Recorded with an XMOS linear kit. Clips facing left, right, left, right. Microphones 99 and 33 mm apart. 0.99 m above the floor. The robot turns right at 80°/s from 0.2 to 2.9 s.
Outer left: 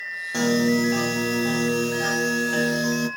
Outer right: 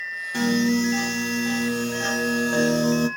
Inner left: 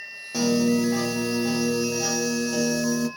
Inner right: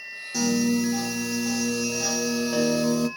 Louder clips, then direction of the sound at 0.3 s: Outer left 1 dB, inner left 2 dB; 35° left.